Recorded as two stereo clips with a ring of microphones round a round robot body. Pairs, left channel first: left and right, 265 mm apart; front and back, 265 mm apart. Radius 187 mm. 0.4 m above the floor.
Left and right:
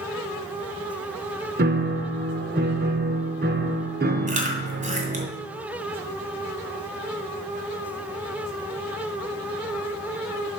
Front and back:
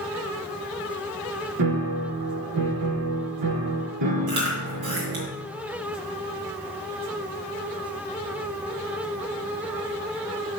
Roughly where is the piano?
Behind right.